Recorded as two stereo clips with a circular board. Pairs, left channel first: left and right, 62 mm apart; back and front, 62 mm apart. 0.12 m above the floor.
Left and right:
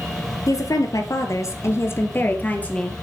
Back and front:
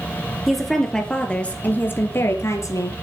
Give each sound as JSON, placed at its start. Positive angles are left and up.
{"t": 0.5, "sound": "a woman speaking", "azimuth_deg": 90, "distance_m": 3.0}